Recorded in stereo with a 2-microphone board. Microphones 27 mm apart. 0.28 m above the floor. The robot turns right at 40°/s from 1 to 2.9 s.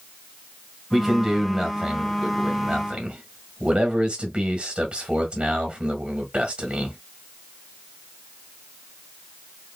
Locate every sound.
0.9 s a man speaking: straight behind, 1.7 m; by 7.0 s 105° right, 1.7 m